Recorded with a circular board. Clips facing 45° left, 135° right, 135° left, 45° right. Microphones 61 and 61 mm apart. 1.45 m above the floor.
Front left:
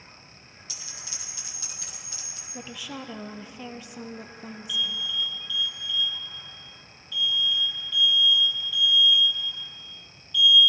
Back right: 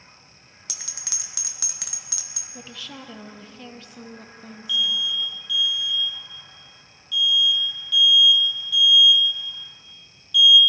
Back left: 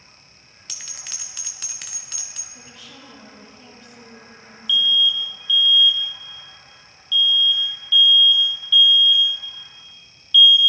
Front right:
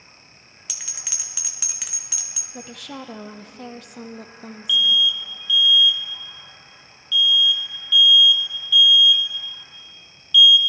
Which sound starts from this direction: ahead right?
A woman speaking, at 2.5 s.